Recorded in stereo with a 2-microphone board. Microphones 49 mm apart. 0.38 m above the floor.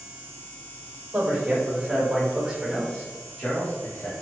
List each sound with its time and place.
1.1 s a man speaking: 35° right (ahead or behind), 1.4 m; by 4.1 s 25° left (ahead or behind), 1.2 m